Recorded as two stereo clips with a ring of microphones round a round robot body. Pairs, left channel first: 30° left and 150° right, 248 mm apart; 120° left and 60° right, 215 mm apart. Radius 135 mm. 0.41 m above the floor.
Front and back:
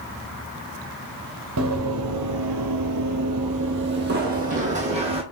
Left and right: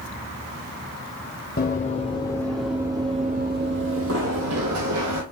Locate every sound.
1.6 s running footsteps: 175° left, 1.0 m; by 5.2 s 80° right, 1.5 m